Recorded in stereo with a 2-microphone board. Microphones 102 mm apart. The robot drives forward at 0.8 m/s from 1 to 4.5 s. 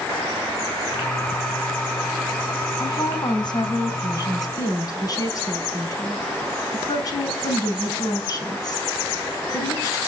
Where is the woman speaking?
50° left (ahead or behind), 3.5 m; by 10.0 s 40° left (ahead or behind), 4.5 m.